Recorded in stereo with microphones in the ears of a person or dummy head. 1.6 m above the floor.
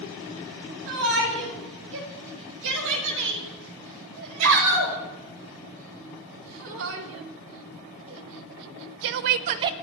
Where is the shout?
70° right (ahead or behind), 9.5 m; by 9.7 s 20° right (ahead or behind), 0.7 m.